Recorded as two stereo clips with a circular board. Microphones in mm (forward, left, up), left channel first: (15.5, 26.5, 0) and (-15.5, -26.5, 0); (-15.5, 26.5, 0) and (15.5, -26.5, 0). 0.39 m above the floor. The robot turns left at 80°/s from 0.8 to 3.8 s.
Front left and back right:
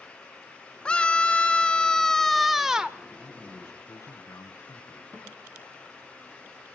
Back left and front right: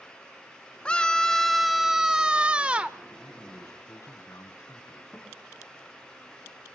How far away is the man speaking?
About 3 m.